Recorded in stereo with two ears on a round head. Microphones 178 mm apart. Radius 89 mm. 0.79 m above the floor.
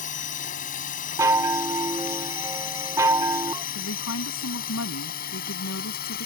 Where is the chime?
15° right (ahead or behind).